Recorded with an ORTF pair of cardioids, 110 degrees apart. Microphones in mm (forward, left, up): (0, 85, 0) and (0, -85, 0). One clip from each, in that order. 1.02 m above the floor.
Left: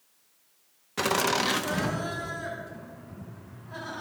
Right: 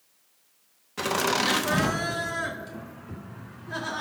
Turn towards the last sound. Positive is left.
turn(degrees=-65)